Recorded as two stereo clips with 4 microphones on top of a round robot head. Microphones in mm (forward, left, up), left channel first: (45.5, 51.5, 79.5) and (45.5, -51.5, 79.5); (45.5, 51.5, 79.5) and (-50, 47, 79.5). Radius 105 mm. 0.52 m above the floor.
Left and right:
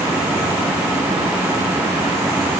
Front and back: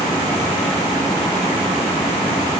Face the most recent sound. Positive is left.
No sound to turn to.